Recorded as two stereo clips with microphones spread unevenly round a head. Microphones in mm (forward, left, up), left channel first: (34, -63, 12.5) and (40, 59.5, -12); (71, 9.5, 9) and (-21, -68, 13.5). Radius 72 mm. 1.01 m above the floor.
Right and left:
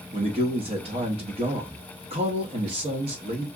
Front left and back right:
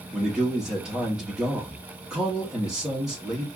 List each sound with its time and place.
0.1 s a man speaking: 135° left, 1.4 m